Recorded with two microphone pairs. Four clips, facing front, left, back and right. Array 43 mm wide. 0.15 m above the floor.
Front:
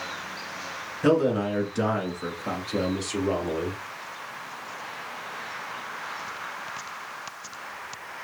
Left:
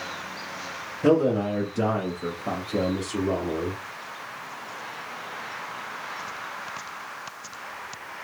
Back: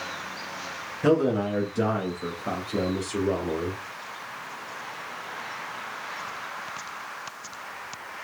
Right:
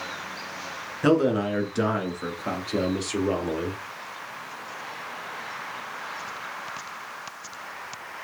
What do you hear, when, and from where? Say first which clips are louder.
1.0 s a man speaking: even, even; 85° right, 1.5 m; by 3.8 s 70° right, 3 m